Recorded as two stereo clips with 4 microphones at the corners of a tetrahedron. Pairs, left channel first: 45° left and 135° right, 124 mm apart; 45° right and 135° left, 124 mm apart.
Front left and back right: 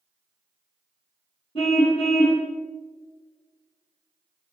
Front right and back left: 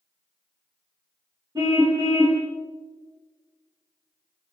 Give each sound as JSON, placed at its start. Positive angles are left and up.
{"t": 1.6, "sound": "a car horn", "azimuth_deg": 75, "distance_m": 6.5}